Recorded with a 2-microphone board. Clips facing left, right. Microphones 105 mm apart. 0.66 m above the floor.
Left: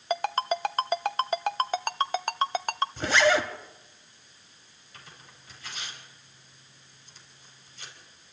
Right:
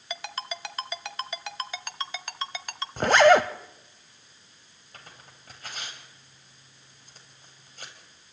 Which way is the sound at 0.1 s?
50° left (ahead or behind).